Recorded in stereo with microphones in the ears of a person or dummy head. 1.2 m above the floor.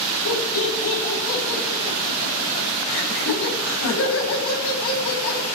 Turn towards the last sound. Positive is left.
turn(degrees=75)  # may be behind; listen again after turning